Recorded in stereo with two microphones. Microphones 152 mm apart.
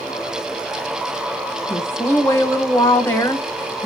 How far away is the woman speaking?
About 1.0 m.